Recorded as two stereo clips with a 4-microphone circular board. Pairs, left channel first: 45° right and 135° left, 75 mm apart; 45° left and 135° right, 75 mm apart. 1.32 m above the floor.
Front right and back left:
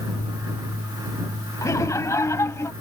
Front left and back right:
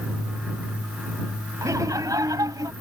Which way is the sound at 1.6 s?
90° right.